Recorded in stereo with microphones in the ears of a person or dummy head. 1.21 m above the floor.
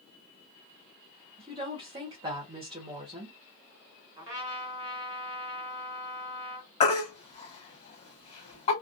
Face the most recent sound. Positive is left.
turn(degrees=35)  # may be behind; listen again after turning